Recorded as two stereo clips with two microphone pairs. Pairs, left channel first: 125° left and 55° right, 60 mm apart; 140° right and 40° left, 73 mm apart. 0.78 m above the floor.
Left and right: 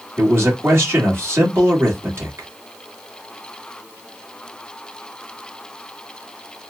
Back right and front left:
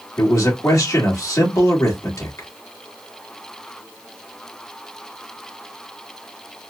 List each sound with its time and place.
0.2 s a man speaking: 100° right, 1.6 m